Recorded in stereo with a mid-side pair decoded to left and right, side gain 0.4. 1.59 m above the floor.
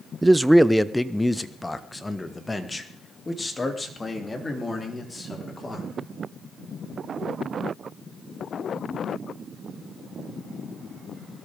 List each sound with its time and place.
0.2 s a man speaking: 20° right, 0.6 m; by 5.9 s 25° left, 4.5 m